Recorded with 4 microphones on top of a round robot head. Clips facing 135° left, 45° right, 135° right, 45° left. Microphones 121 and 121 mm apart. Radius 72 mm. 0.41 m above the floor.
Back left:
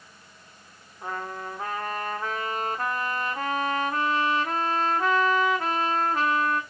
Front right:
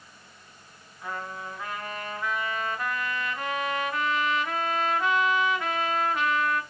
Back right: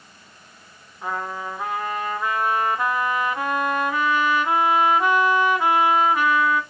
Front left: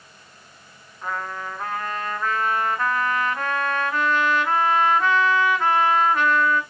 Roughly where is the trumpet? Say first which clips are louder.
Back left 2 dB, back right 1 dB; behind left.